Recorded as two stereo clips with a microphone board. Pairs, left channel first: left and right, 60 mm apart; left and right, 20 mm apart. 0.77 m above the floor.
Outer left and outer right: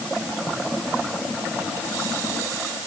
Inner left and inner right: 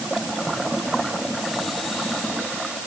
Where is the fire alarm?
No fire alarm in this recording.